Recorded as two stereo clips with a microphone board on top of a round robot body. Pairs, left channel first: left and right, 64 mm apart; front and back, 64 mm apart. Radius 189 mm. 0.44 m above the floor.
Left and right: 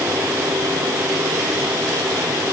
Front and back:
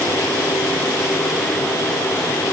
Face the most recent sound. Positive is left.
No sound to turn to.